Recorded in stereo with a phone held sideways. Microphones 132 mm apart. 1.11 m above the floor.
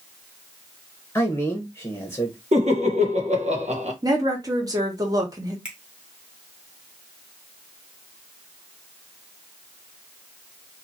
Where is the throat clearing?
I don't hear throat clearing.